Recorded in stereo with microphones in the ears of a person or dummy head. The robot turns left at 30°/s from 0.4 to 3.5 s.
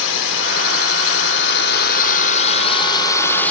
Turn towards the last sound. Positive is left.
turn(degrees=10)